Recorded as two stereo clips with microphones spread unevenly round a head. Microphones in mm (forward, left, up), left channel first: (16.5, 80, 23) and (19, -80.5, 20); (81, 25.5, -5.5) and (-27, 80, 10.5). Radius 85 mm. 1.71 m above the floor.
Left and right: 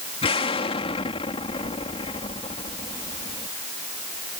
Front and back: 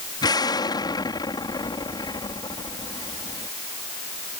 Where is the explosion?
30° left.